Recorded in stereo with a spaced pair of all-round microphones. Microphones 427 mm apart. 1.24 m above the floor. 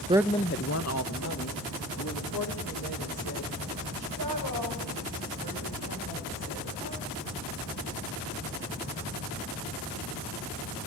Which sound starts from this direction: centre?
A woman speaking, at 0.1 s.